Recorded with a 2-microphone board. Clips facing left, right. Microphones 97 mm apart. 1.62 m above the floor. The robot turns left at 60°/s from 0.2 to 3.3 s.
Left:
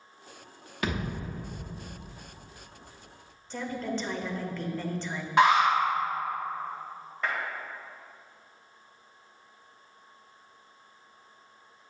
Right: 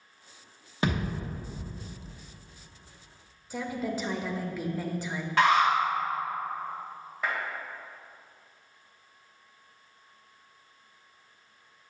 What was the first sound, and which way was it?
A thud, 30° right (ahead or behind).